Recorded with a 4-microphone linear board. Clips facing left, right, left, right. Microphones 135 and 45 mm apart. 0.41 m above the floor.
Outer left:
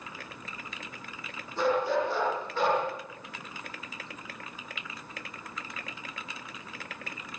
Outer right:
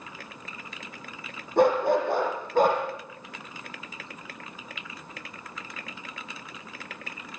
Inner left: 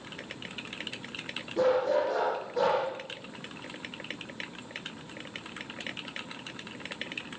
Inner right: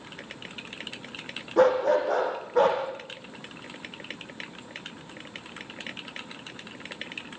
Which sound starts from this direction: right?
A dog barking, at 1.6 s.